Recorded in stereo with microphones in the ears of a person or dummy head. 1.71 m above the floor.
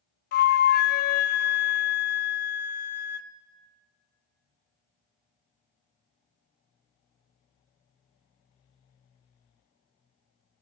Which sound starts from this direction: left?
A flute, at 0.3 s.